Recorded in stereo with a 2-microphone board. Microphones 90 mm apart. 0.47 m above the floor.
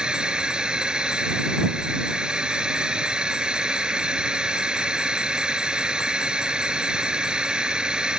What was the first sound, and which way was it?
A drone, 10° right (ahead or behind).